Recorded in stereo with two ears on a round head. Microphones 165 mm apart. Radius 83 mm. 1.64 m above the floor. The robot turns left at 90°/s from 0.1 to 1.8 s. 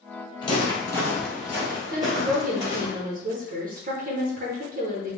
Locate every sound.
0.4 s footsteps: 25° left (ahead or behind), 1.8 m; by 2.9 s 15° right (ahead or behind), 2.5 m
1.9 s a woman speaking: 50° right (ahead or behind), 0.8 m